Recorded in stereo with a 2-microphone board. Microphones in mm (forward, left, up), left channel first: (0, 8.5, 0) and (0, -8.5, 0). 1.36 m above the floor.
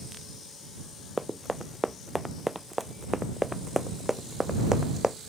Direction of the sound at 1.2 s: 5° right (ahead or behind).